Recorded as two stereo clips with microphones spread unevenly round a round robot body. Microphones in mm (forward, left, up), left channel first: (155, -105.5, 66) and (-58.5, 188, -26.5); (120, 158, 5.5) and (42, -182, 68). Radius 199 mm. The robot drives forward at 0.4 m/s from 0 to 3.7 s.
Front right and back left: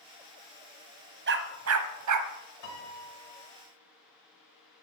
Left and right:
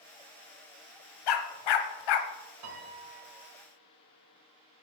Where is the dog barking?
65° left, 1.1 m; by 2.3 s 90° left, 1.0 m.